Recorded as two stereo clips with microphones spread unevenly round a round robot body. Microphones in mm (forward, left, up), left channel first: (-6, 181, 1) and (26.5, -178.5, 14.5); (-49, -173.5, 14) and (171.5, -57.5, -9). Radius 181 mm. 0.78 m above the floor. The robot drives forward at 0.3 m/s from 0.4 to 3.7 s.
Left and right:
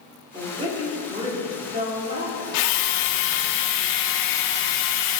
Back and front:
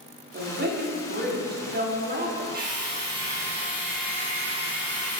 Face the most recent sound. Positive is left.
turn(degrees=115)